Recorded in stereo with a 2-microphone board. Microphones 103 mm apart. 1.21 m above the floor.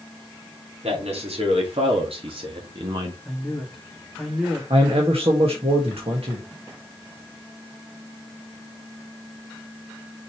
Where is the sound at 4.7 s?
70° right (ahead or behind), 1.9 m.